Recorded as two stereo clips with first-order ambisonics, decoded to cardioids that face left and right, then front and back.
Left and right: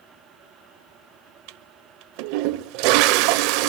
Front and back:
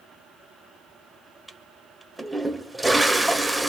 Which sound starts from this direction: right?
A toilet flushing, at 1.5 s.